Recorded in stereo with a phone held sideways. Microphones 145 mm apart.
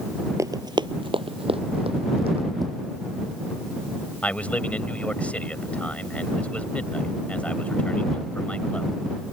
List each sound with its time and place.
0.4 s running footsteps: 20° right (ahead or behind); by 2.5 s 40° right (ahead or behind)
2.6 s tapping: 25° right (ahead or behind)
4.2 s a man speaking: 10° left (ahead or behind)